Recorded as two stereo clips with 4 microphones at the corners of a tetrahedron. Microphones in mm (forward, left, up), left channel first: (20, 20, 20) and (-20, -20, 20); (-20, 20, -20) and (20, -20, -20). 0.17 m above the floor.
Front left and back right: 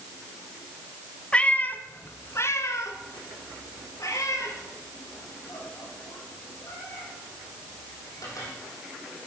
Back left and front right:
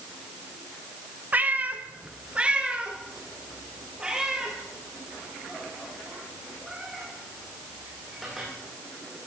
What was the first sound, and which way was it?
A cat meowing, 15° right.